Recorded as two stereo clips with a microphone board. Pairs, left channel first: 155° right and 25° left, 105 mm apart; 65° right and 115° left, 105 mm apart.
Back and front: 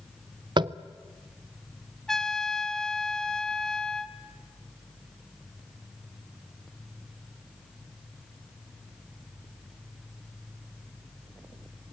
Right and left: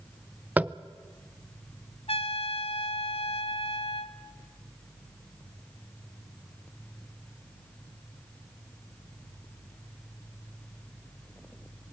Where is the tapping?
40° left, 0.5 m.